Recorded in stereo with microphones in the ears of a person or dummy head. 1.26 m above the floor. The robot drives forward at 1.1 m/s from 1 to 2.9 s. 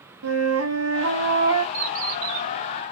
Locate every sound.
0.2 s a flute: 80° right, 1.7 m; by 1.6 s 60° right (ahead or behind), 1.9 m
1.7 s a bird: 50° right (ahead or behind), 4.5 m; by 2.5 s 55° right (ahead or behind), 4 m